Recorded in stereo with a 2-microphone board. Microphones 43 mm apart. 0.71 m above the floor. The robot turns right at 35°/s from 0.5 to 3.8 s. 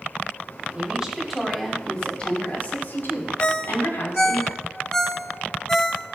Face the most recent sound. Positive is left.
turn(degrees=10)  # may be behind; listen again after turning